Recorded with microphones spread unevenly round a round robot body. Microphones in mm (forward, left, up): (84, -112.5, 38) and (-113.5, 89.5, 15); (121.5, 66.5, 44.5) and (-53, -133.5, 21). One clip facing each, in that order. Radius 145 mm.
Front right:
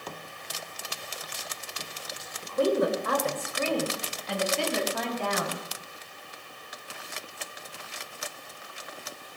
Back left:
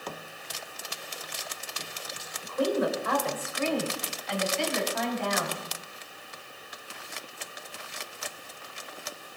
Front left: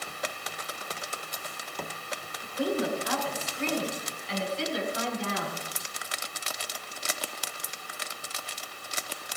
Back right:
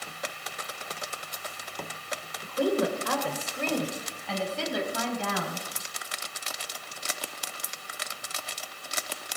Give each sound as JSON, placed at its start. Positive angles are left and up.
{"t": 2.4, "sound": "a woman speaking", "azimuth_deg": -100, "distance_m": 2.5}